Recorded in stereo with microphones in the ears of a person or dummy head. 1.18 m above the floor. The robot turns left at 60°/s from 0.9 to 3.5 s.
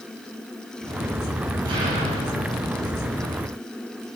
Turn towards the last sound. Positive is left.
turn(degrees=-130)